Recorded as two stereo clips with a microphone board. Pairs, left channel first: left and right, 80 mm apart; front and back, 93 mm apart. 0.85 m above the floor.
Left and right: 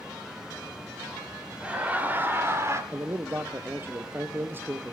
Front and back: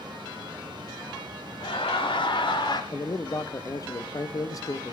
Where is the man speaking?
35° right, 0.9 m.